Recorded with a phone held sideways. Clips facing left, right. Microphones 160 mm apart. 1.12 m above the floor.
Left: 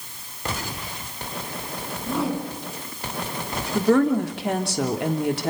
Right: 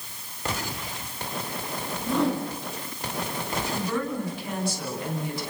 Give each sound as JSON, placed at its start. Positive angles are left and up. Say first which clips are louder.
{"t": 2.0, "sound": "a whoosh", "louder": "right 1 dB", "side_deg": 0, "distance_m": 8.0}
{"t": 3.8, "sound": "a woman speaking", "louder": "left 14 dB", "side_deg": 70, "distance_m": 3.0}